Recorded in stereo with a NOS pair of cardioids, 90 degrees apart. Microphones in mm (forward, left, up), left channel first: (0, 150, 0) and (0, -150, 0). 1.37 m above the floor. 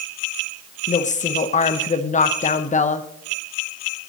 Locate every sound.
0.9 s a woman speaking: 25° left, 1.1 m